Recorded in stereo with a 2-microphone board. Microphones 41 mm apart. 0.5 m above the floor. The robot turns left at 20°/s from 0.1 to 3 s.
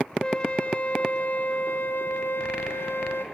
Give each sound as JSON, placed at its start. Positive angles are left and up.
{"t": 0.2, "sound": "a flute", "azimuth_deg": 155, "distance_m": 1.5}